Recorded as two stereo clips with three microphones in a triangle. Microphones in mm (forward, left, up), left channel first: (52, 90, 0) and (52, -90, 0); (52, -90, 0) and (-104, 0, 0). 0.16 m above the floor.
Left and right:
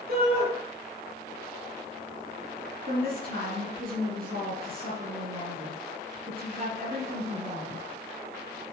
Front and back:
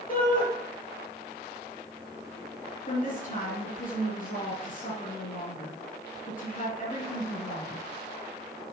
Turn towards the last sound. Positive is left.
turn(degrees=-65)